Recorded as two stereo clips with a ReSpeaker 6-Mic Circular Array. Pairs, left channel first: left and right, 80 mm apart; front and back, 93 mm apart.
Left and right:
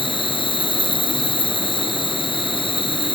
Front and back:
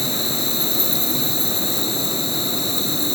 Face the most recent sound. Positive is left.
turn(degrees=90)